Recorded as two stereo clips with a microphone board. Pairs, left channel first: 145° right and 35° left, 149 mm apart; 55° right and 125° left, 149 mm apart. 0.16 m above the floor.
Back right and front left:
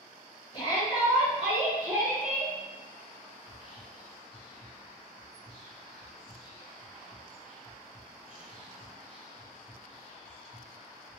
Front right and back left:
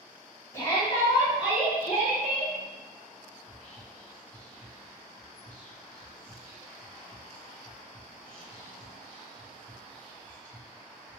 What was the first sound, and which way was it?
A shout, 115° right.